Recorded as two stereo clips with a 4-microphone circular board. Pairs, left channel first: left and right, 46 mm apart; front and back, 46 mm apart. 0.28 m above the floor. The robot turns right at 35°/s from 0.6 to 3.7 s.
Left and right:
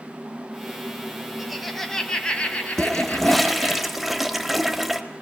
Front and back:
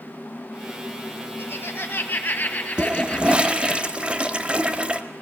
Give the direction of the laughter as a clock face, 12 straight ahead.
12 o'clock.